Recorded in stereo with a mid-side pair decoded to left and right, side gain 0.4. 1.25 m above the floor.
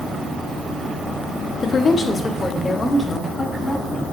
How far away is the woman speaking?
About 0.9 m.